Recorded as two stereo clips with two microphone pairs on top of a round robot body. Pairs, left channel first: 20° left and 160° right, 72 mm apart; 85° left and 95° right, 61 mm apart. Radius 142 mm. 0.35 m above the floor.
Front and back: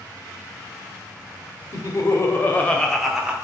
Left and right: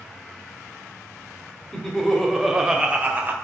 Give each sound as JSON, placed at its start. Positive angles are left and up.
{"t": 1.7, "sound": "laughter", "azimuth_deg": 0, "distance_m": 1.8}